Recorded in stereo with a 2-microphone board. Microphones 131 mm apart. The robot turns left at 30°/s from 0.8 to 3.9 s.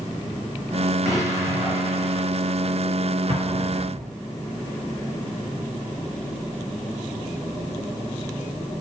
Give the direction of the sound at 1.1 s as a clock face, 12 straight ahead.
11 o'clock.